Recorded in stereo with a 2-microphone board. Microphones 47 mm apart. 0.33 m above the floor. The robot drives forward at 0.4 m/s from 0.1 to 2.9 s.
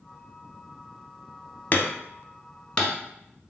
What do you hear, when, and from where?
1.7 s hammering: 40° left (ahead or behind), 0.5 m; by 3.0 s 20° left (ahead or behind), 1.0 m